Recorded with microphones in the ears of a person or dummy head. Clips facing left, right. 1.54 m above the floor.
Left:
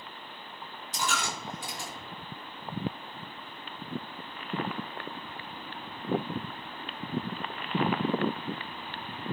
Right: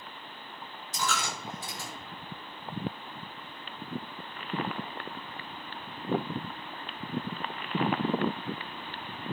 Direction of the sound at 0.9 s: 25° left (ahead or behind).